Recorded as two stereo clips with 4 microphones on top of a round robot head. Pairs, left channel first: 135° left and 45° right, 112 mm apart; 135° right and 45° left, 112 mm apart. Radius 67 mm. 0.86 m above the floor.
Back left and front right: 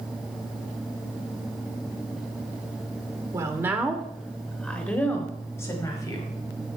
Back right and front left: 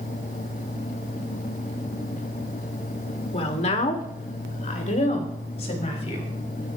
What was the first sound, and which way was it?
A woman speaking, 105° right.